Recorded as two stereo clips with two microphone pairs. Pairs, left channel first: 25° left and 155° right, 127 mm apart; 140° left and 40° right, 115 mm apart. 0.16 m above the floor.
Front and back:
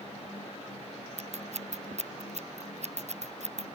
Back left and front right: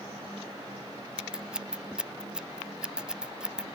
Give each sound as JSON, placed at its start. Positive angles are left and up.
{"t": 1.2, "sound": "scissors", "azimuth_deg": -125}